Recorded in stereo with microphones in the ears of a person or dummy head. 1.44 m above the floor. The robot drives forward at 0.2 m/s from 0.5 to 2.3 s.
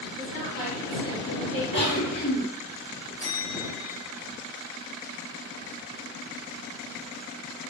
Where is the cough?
30° left (ahead or behind), 1.1 m; by 2.4 s 25° left (ahead or behind), 1.2 m.